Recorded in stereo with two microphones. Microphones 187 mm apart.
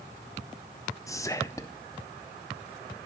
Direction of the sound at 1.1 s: 15° left (ahead or behind).